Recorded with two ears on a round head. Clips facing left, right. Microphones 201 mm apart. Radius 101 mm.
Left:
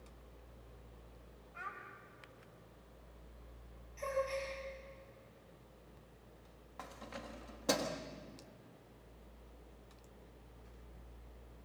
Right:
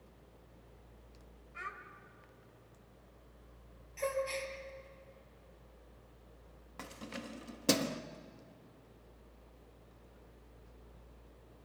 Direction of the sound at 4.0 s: 80° right.